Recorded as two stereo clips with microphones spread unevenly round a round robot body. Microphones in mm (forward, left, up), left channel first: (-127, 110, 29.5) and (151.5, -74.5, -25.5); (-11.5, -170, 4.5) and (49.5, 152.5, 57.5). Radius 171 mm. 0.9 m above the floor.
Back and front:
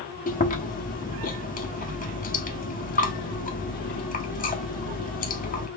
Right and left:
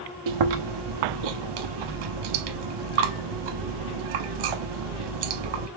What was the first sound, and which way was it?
Chewing, 80° left.